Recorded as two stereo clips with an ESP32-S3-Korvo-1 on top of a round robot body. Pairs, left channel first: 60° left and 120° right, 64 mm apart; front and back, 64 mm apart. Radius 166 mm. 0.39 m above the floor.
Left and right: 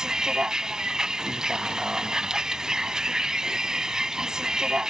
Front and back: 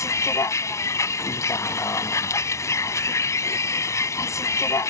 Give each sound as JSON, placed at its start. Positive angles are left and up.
{"t": 0.0, "sound": "a vehicle", "azimuth_deg": -40}